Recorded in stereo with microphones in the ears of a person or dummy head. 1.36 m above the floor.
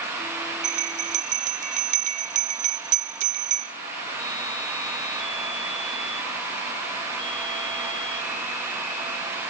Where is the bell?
35° right (ahead or behind), 0.6 m.